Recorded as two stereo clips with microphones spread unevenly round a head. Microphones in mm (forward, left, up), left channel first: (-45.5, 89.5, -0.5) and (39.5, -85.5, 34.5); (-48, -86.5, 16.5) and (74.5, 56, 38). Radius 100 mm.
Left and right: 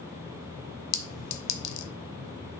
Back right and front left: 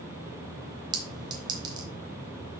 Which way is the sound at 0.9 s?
115° left.